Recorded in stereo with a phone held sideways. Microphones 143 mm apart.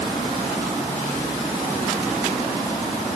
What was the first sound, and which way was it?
Only background noise.